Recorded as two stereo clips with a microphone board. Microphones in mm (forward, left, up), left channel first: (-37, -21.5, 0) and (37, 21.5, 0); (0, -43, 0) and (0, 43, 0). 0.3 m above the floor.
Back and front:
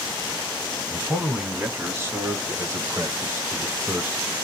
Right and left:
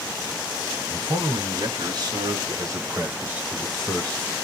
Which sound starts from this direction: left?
A man speaking, at 0.9 s.